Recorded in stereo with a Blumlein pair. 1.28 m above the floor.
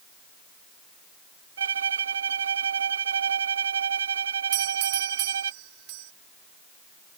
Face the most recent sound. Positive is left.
turn(degrees=-45)